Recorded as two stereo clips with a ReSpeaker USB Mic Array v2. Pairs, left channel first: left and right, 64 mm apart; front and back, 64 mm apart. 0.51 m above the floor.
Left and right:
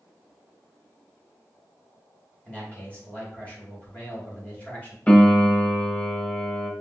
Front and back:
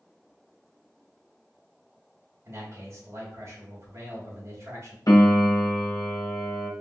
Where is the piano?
25° left, 0.9 m.